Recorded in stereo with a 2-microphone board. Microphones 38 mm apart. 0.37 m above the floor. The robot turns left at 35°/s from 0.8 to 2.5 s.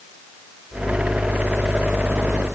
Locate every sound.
Only background noise.